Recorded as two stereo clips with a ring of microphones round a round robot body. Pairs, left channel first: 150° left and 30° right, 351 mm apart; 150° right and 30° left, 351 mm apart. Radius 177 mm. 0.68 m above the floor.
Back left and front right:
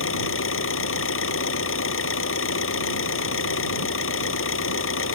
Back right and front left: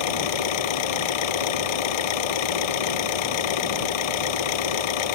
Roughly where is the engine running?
Behind right.